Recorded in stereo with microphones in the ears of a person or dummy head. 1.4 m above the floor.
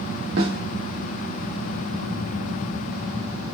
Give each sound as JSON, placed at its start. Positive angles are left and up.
{"t": 0.4, "sound": "a snare drum", "side_deg": -65, "distance_m": 1.7}